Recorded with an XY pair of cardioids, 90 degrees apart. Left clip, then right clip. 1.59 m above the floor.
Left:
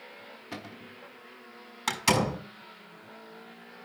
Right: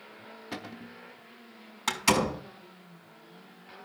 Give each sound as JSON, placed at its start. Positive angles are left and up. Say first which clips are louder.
{"t": 0.5, "sound": "a cupboard door", "louder": "right 2 dB", "azimuth_deg": -20, "distance_m": 1.3}
{"t": 1.9, "sound": "a door slam", "louder": "even", "azimuth_deg": 10, "distance_m": 5.0}